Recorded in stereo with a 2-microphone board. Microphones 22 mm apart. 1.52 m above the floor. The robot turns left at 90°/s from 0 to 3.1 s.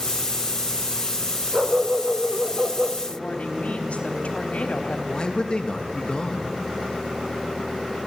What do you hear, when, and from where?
1.5 s a dog barking: 30° right, 2.0 m; by 3.0 s 160° right, 2.0 m
3.1 s a woman speaking: 65° left (ahead or behind), 3.5 m; by 5.0 s 70° left (ahead or behind), 3.5 m
5.1 s a man speaking: 40° left (ahead or behind), 2.5 m